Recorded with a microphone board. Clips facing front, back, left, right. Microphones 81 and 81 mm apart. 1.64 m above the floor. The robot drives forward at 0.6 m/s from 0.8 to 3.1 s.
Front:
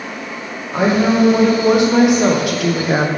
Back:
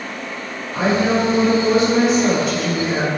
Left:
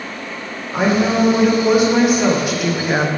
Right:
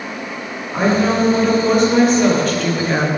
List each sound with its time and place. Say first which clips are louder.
0.7 s a woman speaking: front 3 dB, even; 5° left, 2 m; by 3.1 s 15° left, 0.7 m